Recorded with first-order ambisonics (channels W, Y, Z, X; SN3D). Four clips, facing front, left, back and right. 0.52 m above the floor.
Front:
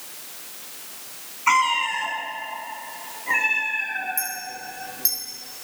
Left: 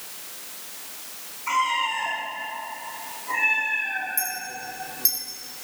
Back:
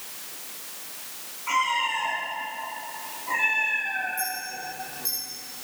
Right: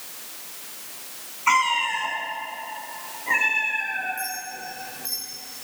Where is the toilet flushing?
No toilet flushing in this recording.